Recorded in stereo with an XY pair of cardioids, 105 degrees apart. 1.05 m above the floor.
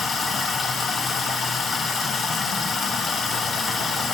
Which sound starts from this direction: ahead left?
Running water, at 0.0 s.